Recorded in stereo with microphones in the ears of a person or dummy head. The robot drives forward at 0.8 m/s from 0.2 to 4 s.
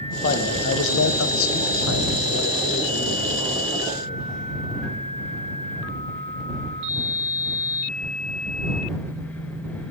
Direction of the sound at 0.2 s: 45° left (ahead or behind).